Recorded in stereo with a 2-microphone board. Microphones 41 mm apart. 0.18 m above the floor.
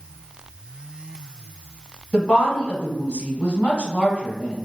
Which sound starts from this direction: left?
A woman speaking, at 2.1 s.